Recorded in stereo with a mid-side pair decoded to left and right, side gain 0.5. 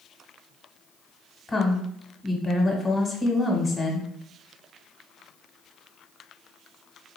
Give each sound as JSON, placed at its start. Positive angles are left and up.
{"t": 1.5, "sound": "a woman speaking", "azimuth_deg": 25, "distance_m": 1.0}